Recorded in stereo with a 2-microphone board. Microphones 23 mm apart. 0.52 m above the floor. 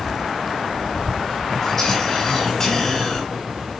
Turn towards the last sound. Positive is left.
turn(degrees=20)  # may be behind; listen again after turning